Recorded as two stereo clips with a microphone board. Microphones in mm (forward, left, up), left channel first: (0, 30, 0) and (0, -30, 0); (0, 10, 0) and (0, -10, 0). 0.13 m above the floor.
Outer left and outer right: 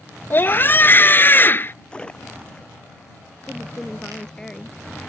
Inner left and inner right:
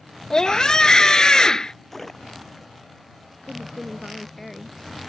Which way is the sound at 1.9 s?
15° left (ahead or behind).